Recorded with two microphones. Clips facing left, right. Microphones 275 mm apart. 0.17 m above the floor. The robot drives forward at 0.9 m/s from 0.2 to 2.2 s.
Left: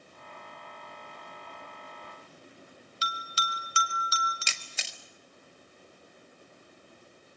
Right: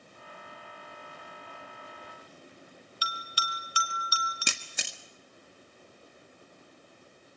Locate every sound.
3.0 s a bell: 25° left (ahead or behind), 1.7 m
4.5 s a camera shutter: 65° right (ahead or behind), 1.4 m